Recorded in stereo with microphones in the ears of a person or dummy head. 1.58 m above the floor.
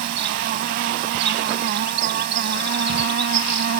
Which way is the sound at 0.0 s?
55° right (ahead or behind).